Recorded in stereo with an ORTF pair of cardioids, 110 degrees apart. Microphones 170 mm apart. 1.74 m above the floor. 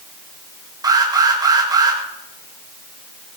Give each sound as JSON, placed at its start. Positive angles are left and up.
{"t": 0.8, "sound": "an alarm", "azimuth_deg": -25, "distance_m": 7.0}